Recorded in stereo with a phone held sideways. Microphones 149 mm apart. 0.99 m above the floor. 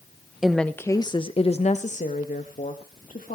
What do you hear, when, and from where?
0.4 s a woman speaking: 5° right (ahead or behind), 0.7 m; by 3.4 s 70° left (ahead or behind), 2 m